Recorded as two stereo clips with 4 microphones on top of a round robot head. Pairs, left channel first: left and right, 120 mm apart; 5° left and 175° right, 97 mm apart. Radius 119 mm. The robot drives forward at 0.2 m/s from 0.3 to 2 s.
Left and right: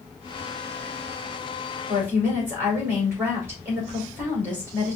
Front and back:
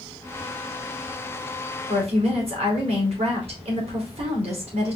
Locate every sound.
1.9 s a woman speaking: 165° right, 3 m